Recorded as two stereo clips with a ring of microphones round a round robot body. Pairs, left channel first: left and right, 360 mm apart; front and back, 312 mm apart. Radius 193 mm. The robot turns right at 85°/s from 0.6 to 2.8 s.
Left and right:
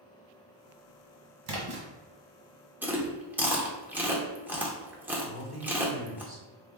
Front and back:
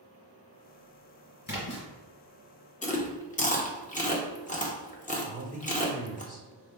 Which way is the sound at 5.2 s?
50° right.